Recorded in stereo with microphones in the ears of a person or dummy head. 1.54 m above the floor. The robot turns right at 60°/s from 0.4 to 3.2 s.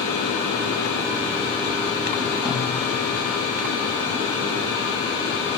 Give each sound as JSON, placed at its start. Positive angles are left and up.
{"t": 2.5, "sound": "a snare drum", "side_deg": -45, "distance_m": 4.0}